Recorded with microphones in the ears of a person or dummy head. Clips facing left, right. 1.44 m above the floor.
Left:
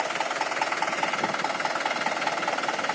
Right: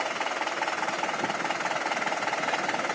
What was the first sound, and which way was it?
Only background noise.